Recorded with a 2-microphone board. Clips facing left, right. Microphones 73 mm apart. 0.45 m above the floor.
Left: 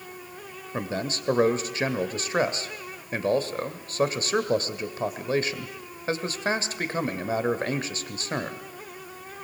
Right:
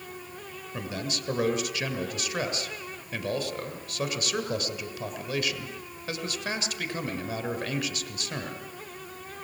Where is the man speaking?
35° left (ahead or behind), 1.8 m.